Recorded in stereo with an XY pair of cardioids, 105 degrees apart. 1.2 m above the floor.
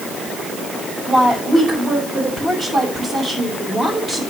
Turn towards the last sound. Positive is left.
turn(degrees=-35)